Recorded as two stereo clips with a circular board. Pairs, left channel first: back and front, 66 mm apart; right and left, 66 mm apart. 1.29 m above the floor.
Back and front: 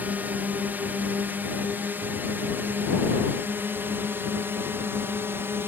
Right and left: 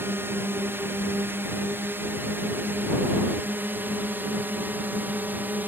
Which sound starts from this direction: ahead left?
A drone, at 0.0 s.